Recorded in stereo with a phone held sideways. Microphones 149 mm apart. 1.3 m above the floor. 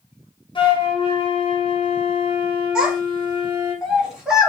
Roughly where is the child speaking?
Centre.